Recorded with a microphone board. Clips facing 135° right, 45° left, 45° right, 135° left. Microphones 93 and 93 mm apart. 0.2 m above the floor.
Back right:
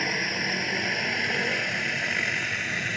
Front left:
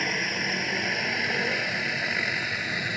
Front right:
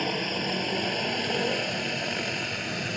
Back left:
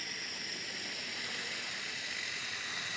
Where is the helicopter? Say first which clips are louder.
Even, front right 18 dB; 45° right; by 3.0 s 35° right.